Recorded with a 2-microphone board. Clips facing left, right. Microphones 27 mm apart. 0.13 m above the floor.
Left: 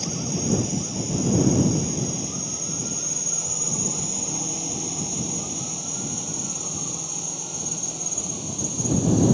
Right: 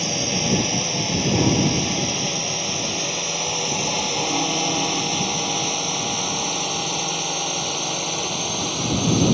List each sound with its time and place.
0.0 s a drone: 60° right (ahead or behind); by 9.3 s 65° right (ahead or behind)